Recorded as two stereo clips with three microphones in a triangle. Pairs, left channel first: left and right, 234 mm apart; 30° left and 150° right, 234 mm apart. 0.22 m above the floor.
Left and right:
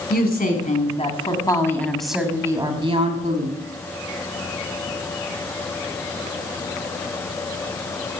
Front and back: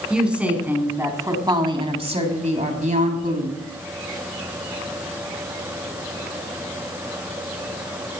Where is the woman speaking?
125° left, 2.5 m; by 3.6 s 115° right, 2 m.